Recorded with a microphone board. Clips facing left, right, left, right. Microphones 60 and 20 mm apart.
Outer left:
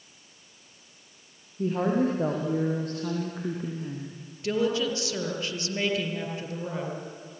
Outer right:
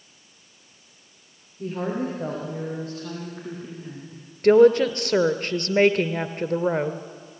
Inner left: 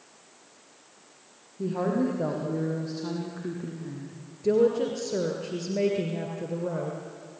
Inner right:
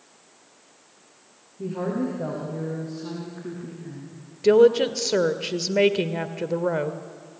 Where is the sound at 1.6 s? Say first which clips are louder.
Outer left 3 dB, inner left 1 dB; 40° left (ahead or behind), 6 m; by 4.2 s 50° left (ahead or behind), 4 m.